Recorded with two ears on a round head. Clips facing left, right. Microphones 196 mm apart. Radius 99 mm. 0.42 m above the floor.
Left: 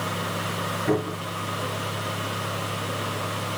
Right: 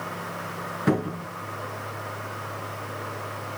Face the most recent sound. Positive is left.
turn(degrees=-75)  # may be behind; listen again after turning